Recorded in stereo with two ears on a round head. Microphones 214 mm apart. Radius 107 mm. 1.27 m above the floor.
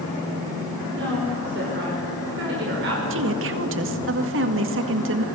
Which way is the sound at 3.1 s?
50° right (ahead or behind).